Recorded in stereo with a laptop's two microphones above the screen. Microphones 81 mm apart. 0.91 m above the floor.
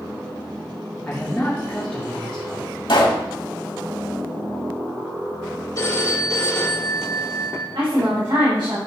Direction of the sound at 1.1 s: 15° left (ahead or behind).